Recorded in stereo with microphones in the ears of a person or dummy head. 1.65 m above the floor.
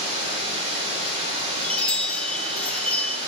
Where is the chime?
5° left (ahead or behind), 0.6 m.